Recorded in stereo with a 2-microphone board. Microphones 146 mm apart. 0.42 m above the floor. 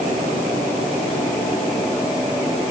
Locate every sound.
Only background noise.